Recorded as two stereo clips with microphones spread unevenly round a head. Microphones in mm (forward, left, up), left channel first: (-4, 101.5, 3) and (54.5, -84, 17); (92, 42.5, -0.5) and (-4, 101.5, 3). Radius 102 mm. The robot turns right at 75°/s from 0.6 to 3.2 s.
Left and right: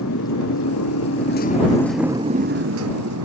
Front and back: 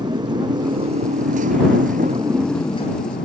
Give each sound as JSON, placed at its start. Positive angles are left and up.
{"t": 0.0, "sound": "a motorcycle", "azimuth_deg": 95}